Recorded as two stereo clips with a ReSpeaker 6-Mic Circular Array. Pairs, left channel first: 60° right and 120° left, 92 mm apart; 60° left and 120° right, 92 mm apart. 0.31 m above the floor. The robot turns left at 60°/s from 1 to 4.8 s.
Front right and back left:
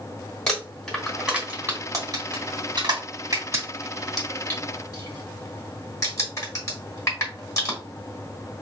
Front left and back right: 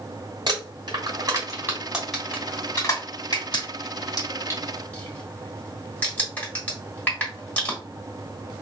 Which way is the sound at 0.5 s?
140° right.